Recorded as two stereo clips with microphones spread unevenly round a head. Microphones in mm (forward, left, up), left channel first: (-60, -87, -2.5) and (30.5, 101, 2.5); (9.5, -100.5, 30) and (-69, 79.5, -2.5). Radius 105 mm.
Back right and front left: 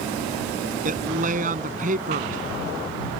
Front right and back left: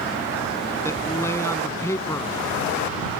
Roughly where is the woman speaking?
Ahead.